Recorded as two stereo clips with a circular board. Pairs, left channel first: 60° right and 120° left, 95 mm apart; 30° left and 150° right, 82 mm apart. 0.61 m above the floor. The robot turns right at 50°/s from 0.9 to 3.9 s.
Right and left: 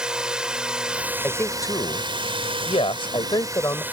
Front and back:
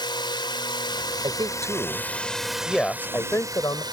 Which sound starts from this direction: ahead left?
A drone, at 0.0 s.